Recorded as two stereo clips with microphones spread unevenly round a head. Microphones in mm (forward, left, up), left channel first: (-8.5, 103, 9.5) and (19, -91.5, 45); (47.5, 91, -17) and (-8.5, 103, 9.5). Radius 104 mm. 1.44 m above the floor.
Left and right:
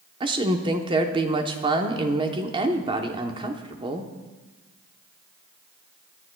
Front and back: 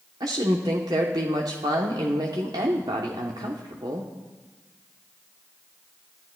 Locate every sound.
0.2 s a woman speaking: 150° right, 0.9 m